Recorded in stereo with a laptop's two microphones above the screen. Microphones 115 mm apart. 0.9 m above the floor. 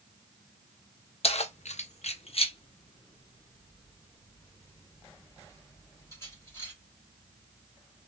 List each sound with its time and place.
1.2 s keys jangling: 60° left (ahead or behind), 0.5 m; by 6.7 s 25° left (ahead or behind), 3 m